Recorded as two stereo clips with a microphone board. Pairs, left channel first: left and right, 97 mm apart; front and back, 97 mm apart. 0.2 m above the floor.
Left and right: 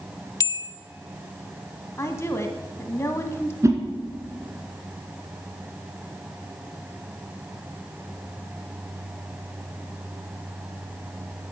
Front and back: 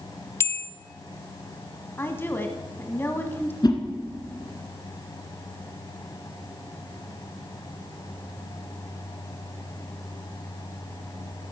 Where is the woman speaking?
50° left, 1.2 m.